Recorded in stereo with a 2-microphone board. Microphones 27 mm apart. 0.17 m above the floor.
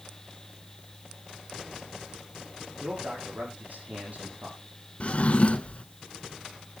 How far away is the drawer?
About 0.9 m.